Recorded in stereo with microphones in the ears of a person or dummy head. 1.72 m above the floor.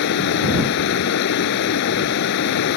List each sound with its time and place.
0.0 s running water: 55° left (ahead or behind)